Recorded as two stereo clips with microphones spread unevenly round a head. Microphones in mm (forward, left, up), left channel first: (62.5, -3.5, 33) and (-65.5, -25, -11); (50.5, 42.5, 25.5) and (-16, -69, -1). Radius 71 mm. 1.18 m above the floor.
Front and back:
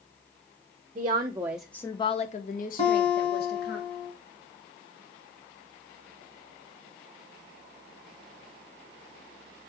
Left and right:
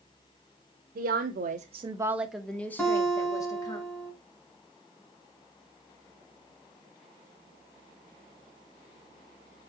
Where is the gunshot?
No gunshot in this recording.